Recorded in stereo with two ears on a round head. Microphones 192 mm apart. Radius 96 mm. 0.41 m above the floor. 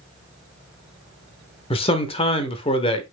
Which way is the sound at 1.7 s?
30° left (ahead or behind).